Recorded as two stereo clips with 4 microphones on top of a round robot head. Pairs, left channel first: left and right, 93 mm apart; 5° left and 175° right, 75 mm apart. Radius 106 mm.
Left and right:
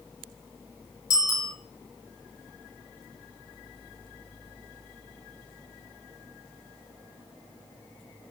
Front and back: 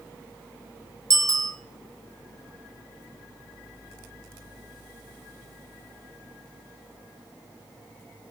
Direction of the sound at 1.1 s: 145° left.